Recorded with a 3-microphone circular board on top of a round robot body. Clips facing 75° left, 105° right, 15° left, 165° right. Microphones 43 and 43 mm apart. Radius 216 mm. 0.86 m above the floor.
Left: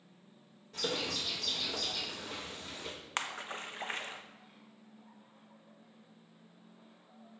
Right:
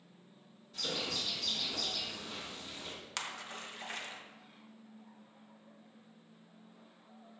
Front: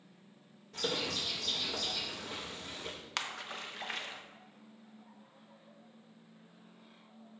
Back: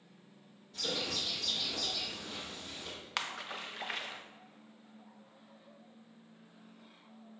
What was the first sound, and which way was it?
A bird, 40° left.